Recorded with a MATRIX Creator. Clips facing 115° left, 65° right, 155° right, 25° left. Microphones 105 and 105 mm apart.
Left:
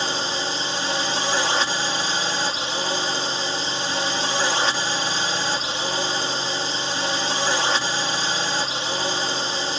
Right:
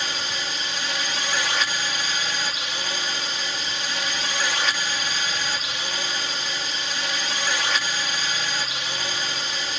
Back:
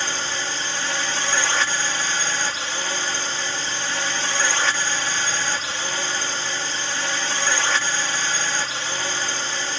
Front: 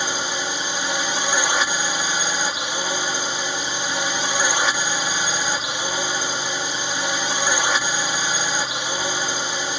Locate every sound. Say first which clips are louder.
0.0 s a drone: left 5 dB, front 2 dB; 85° left